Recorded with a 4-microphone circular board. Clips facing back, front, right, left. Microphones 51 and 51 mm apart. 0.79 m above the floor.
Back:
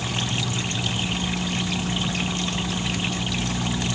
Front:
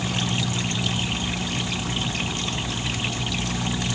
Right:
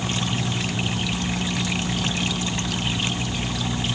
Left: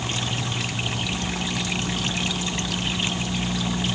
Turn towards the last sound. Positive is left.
No sound to turn to.